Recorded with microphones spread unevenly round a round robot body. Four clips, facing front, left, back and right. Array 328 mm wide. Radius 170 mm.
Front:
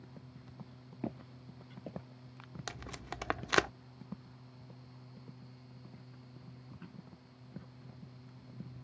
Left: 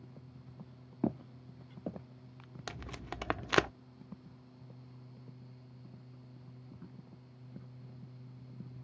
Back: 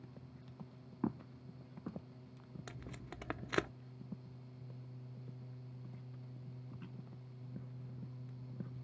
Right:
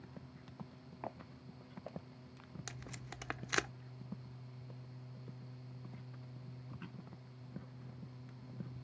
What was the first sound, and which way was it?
Footsteps, 105° left.